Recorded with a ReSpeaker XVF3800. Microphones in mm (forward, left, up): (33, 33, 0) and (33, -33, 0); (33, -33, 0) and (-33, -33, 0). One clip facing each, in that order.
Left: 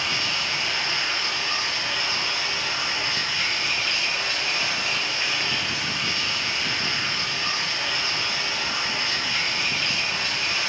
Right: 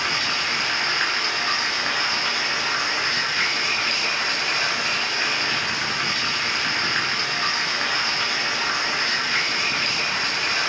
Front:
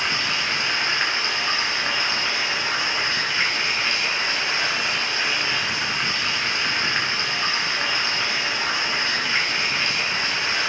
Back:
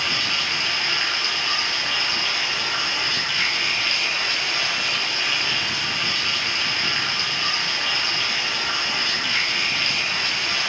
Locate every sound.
0.0 s running water: 60° right, 3 m